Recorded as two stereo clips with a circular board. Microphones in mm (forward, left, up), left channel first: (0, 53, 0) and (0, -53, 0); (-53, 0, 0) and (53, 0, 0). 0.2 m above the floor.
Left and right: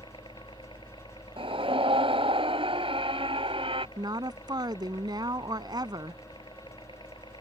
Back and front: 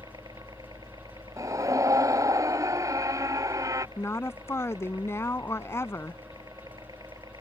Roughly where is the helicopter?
Ahead left.